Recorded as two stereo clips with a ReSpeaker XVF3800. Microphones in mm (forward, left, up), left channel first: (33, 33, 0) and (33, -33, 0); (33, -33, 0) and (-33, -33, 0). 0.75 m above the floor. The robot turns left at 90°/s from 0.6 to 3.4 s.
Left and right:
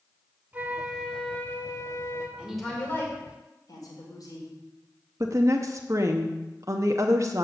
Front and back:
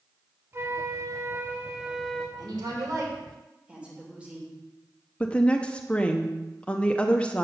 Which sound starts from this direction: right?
A woman speaking, at 5.2 s.